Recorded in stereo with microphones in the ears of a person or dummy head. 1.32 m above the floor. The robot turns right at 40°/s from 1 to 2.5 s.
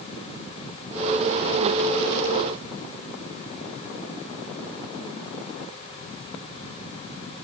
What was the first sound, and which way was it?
Only background noise.